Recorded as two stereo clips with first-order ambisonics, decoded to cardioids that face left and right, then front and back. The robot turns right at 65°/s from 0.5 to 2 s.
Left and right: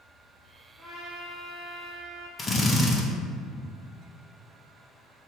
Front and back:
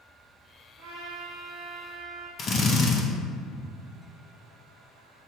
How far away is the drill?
About 0.8 m.